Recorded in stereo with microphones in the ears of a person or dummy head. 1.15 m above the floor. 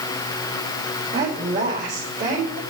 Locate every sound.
1.1 s a woman speaking: 40° right (ahead or behind), 4.5 m; by 2.6 s 35° right (ahead or behind), 5 m